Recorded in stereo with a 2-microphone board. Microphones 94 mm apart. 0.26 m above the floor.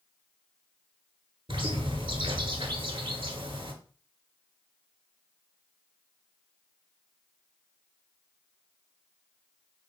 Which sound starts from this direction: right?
A bird, at 1.5 s.